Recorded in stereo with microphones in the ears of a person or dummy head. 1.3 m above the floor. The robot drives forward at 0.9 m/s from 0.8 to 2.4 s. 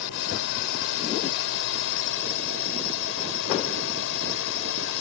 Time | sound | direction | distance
0.0 | a drone | 70° left (ahead or behind) | ?